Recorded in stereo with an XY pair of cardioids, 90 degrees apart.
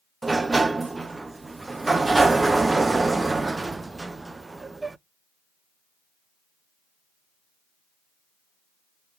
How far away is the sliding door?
About 0.6 m.